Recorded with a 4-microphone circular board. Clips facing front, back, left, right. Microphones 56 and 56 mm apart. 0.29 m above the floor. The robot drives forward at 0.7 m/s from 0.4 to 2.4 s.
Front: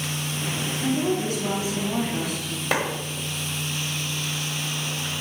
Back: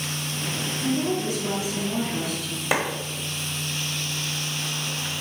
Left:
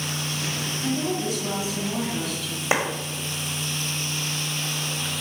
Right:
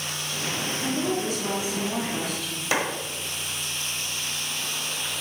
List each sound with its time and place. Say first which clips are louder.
0.8 s a woman speaking: front 1 dB, left 1 dB; 10° right, 2.5 m; by 2.6 s 20° right, 1.8 m
2.7 s a clap: back 1 dB, left 2 dB; 105° left, 1.2 m